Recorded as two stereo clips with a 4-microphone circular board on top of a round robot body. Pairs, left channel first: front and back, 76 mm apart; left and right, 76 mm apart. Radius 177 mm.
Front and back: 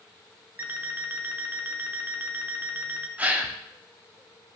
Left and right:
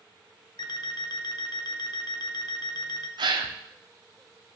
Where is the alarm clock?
110° left, 0.8 m.